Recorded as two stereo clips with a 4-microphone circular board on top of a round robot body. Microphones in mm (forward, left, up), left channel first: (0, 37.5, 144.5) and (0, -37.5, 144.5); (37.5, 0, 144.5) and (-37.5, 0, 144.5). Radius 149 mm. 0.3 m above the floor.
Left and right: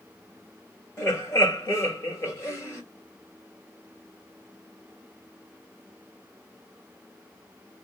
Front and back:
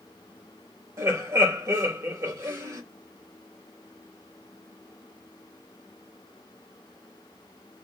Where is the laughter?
135° left, 2.5 m.